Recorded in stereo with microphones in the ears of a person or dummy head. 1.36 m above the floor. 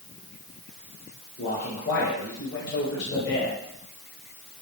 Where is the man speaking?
55° left (ahead or behind), 4.5 m; by 3.6 s 60° left (ahead or behind), 6 m.